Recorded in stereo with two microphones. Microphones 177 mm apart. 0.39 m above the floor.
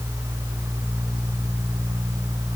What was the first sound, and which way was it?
Only background noise.